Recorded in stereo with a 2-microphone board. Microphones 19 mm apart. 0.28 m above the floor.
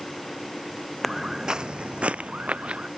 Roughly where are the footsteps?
Centre.